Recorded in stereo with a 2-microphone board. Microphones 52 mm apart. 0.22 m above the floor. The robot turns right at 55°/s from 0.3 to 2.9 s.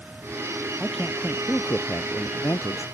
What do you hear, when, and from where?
0.8 s a man speaking: 5° right; by 2.9 s 110° left